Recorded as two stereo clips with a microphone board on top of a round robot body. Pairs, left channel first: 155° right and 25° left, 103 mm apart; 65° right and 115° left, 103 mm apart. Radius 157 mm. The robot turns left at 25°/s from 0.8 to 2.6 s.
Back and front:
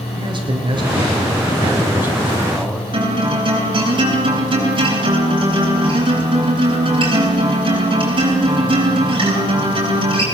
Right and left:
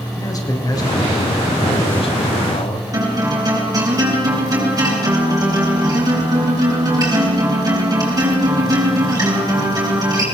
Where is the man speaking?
15° right, 4 m; by 2.8 s 60° right, 4 m.